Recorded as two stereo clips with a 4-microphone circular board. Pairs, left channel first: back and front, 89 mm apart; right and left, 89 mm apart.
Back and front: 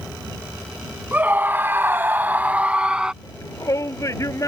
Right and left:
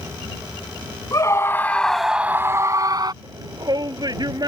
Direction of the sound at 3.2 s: 130° left.